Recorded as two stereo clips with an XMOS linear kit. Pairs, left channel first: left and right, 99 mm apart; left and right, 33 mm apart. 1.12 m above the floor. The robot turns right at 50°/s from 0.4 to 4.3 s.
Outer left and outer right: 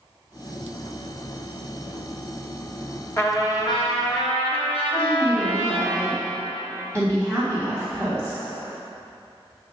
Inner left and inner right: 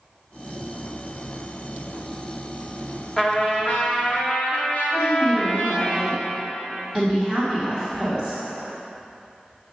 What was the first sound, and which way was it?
A trumpet, 25° left.